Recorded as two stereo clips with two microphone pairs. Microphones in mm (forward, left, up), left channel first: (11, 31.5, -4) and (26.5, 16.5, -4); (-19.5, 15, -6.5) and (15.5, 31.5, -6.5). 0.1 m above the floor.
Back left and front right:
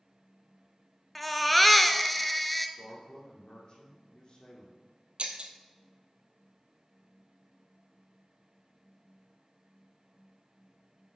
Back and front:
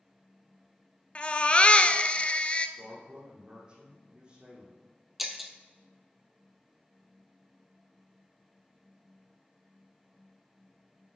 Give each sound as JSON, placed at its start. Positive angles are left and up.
{"t": 1.1, "sound": "a baby crying", "azimuth_deg": -150, "distance_m": 0.6}
{"t": 2.8, "sound": "a man speaking", "azimuth_deg": 85, "distance_m": 3.5}
{"t": 5.2, "sound": "breaking glass", "azimuth_deg": -60, "distance_m": 1.0}